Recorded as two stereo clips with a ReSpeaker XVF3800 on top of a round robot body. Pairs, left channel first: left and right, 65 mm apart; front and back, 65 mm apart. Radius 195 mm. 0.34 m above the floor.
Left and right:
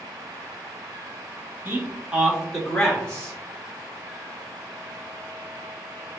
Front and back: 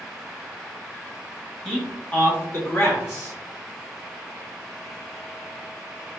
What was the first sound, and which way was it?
A man speaking, 70° right.